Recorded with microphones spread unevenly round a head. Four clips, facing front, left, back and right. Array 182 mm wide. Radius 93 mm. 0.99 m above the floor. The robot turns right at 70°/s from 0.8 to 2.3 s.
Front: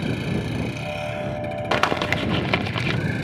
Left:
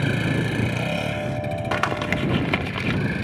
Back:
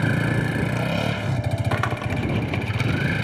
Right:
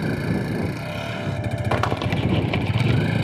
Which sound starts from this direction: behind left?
A vehicle, at 0.0 s.